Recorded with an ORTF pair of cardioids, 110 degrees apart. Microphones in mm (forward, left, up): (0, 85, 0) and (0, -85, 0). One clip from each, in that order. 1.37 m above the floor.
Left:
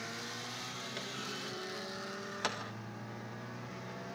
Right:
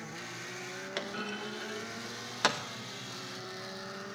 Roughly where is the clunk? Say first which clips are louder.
Right 6 dB; ahead right.